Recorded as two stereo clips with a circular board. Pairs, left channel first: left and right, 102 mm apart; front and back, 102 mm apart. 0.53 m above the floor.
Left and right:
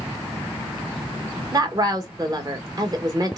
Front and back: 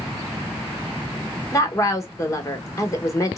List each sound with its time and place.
1.5 s a woman speaking: 50° right, 1.1 m